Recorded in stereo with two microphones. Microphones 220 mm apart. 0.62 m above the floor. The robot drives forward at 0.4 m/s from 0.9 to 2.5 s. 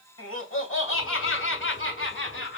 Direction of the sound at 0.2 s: 80° left.